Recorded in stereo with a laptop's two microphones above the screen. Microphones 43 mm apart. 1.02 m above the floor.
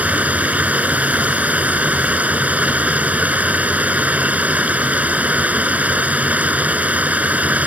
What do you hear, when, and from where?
0.0 s running water: 35° right (ahead or behind)